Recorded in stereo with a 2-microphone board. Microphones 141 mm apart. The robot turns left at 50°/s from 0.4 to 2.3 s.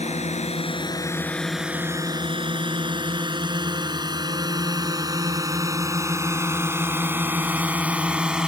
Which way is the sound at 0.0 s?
50° left (ahead or behind).